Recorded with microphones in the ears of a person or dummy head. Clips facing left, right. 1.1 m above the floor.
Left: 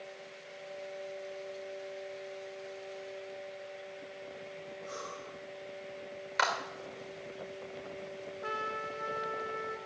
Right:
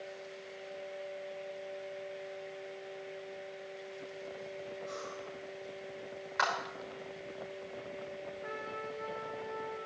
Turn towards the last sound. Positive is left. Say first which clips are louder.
# left 4 dB
turn(degrees=80)